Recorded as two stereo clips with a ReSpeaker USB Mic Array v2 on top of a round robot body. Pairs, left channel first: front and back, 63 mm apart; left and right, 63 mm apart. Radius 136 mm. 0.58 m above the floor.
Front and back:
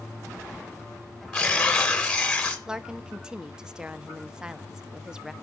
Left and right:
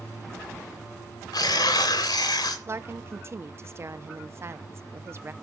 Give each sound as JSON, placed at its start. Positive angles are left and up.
{"t": 1.3, "sound": "tearing paper", "azimuth_deg": 80, "distance_m": 2.0}
{"t": 2.7, "sound": "a woman speaking", "azimuth_deg": -105, "distance_m": 1.0}